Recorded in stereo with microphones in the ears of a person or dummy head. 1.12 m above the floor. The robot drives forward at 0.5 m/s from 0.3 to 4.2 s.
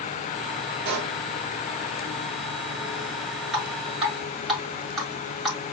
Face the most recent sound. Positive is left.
turn(degrees=-5)  # may be behind; listen again after turning